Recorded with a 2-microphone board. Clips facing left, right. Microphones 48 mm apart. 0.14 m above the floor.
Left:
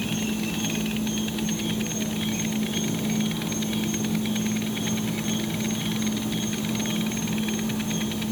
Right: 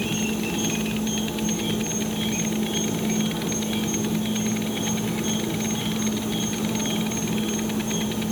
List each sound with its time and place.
0.0 s an insect: 70° right (ahead or behind), 0.9 m